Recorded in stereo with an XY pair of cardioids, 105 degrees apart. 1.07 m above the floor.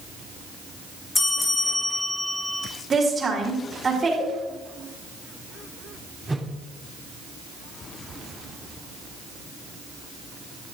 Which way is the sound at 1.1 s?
25° left.